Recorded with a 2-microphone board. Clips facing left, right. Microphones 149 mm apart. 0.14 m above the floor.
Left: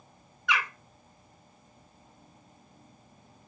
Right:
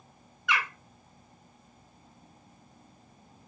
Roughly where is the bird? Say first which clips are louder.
Even; centre.